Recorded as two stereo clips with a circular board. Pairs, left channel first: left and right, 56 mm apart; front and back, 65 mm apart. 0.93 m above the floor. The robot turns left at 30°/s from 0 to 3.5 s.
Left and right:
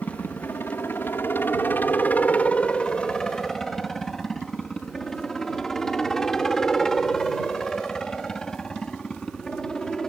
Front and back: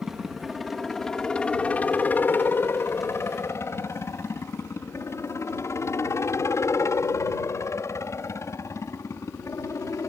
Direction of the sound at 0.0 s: 105° left.